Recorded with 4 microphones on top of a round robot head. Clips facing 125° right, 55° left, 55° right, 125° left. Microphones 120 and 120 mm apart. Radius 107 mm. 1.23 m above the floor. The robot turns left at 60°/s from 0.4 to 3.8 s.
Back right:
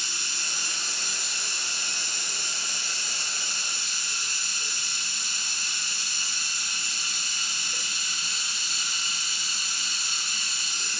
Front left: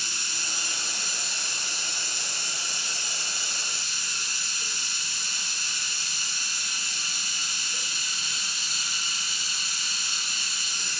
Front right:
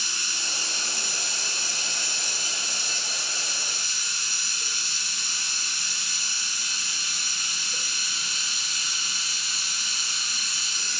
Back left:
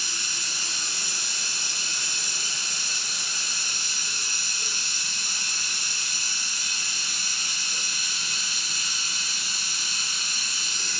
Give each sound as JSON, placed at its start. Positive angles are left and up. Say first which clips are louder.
{"t": 0.0, "sound": "running water", "louder": "even, front right 1 dB", "azimuth_deg": 10, "distance_m": 1.7}